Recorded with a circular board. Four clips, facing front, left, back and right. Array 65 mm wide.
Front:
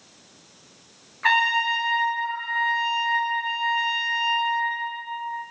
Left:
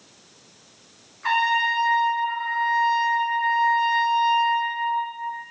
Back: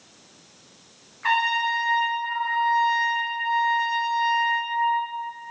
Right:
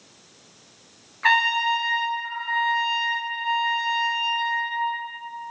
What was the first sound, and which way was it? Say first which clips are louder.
A trumpet: right 1 dB, front 2 dB; 60° right.